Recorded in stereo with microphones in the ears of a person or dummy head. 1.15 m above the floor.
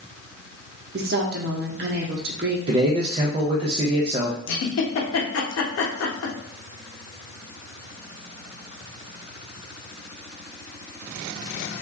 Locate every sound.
0.9 s a woman speaking: 50° right (ahead or behind), 0.7 m
2.7 s a man speaking: 35° right (ahead or behind), 0.6 m
4.5 s a giggle: 80° left, 0.7 m